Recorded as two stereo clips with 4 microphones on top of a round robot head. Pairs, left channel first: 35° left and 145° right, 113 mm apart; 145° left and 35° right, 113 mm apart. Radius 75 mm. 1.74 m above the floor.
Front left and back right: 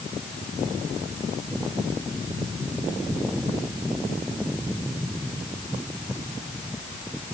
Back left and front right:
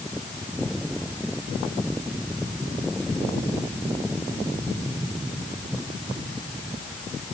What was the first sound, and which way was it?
Only background noise.